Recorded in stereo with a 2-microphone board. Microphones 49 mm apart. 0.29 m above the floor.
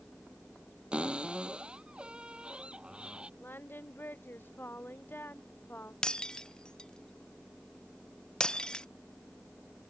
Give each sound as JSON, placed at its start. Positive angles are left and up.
{"t": 0.9, "sound": "a cupboard door", "side_deg": -20}
{"t": 3.4, "sound": "singing", "side_deg": 45}
{"t": 6.0, "sound": "breaking glass", "side_deg": 15}